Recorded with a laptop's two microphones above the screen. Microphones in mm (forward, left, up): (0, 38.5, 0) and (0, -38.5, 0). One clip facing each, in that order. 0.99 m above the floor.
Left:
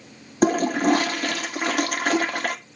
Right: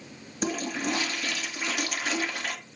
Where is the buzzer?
I don't hear a buzzer.